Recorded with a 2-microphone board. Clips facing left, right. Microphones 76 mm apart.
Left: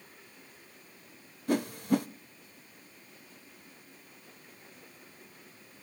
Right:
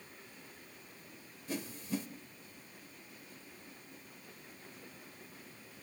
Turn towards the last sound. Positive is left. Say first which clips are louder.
# left 11 dB
turn(degrees=65)  # may be behind; listen again after turning